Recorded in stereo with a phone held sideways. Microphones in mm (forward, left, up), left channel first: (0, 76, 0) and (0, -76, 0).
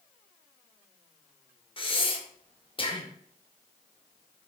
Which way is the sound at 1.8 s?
35° left (ahead or behind).